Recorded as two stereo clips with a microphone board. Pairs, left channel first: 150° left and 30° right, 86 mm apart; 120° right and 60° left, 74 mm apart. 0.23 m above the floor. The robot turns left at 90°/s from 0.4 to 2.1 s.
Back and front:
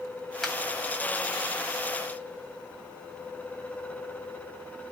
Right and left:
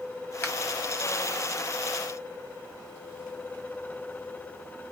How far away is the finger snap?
About 1.5 m.